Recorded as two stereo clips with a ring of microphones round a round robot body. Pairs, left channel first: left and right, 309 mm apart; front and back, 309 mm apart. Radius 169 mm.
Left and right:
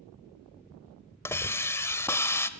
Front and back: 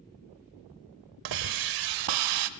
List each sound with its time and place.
1.2 s a hiss: 170° left, 0.8 m